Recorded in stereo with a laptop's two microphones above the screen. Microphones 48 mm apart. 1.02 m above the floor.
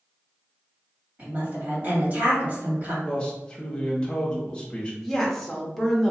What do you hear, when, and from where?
1.2 s a woman speaking: 35° right (ahead or behind), 1.9 m
3.0 s a man speaking: 15° left (ahead or behind), 1.4 m
5.0 s a woman speaking: 5° left (ahead or behind), 1.0 m